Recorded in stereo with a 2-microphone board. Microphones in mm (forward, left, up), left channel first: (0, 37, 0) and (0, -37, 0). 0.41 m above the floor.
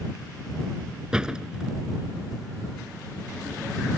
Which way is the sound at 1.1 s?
10° right (ahead or behind).